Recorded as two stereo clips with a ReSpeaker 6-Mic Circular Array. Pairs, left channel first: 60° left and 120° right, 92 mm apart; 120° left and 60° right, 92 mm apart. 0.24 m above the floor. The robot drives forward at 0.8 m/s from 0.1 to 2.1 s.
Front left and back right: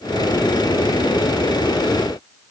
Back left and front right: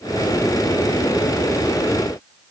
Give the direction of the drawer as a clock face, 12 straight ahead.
No drawer in this recording.